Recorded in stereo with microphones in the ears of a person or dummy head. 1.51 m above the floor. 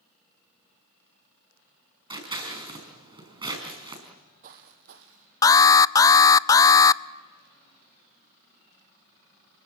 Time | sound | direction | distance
2.1 | scissors | 25° right (ahead or behind) | 4.5 m
4.1 | footsteps | 35° right (ahead or behind) | 2.5 m
5.4 | an alarm | 15° left (ahead or behind) | 0.5 m